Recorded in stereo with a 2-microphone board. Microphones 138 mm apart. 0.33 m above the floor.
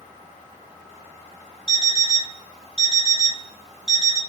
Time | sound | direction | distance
1.7 | an alarm clock | 50° right (ahead or behind) | 0.7 m